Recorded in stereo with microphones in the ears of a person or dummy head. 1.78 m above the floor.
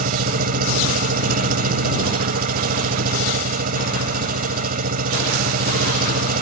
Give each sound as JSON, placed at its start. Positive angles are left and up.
{"t": 0.0, "sound": "an engine running", "side_deg": -45}